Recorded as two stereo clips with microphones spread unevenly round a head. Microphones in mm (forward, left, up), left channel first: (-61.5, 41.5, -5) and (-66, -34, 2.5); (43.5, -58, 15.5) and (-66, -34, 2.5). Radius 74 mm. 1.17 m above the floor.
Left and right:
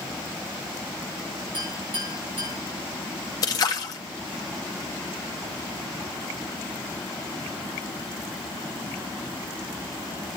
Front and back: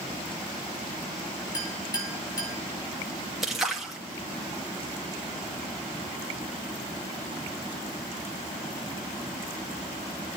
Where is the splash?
85° left, 1.0 m.